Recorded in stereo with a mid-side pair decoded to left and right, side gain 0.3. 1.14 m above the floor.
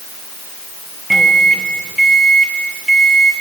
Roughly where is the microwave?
Ahead.